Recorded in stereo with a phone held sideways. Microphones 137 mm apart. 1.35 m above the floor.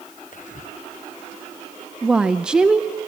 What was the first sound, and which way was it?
Whispering, 65° left (ahead or behind).